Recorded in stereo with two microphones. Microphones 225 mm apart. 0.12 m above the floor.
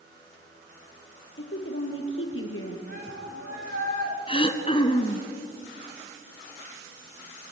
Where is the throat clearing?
25° left (ahead or behind), 1.4 m.